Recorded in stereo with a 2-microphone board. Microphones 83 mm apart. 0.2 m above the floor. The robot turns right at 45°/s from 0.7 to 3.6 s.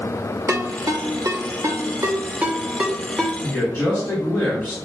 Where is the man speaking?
25° left (ahead or behind), 1.7 m.